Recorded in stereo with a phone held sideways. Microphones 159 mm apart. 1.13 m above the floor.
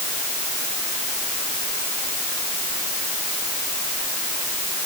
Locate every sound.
Only background noise.